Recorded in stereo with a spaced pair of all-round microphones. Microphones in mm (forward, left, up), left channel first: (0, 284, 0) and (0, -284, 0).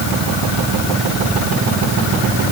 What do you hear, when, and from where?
Only background noise.